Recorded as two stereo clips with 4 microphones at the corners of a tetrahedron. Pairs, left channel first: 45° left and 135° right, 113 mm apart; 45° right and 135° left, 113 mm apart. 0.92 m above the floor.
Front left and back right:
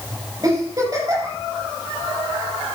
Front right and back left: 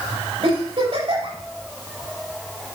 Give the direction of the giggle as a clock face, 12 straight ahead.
6 o'clock.